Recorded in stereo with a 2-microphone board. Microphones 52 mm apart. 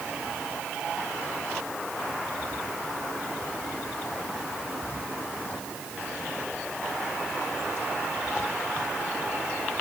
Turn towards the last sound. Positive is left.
No sound to turn to.